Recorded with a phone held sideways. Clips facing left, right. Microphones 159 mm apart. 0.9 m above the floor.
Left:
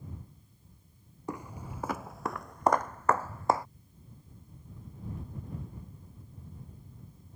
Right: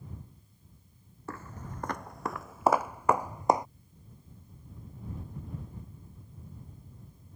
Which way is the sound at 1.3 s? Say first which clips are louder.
Left 3 dB; 15° left (ahead or behind).